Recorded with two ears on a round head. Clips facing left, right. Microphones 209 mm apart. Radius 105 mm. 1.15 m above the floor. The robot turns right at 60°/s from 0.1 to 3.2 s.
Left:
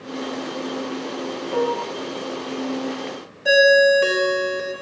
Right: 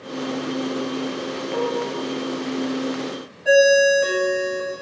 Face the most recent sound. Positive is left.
turn(degrees=60)  # may be behind; listen again after turning